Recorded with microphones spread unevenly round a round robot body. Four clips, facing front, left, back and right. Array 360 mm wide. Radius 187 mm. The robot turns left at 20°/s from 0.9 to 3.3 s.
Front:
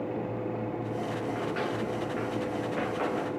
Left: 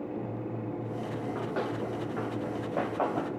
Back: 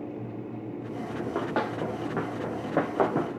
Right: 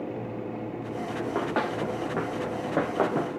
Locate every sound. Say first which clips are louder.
1.2 s running footsteps: right 6 dB, back 2 dB; 110° right, 4 m; by 3.4 s 150° right, 1.7 m